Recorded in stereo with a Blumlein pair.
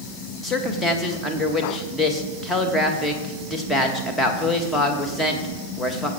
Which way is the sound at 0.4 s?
10° left.